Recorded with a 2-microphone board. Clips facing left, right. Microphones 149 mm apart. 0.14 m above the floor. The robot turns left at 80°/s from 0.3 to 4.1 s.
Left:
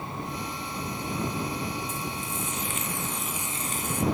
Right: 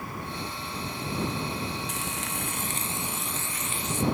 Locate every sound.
1.9 s frying: 75° right; by 4.0 s 115° left